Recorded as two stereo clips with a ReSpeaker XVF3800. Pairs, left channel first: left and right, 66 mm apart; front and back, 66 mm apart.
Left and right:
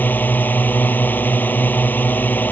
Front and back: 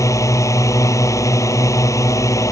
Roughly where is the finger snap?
I don't hear a finger snap.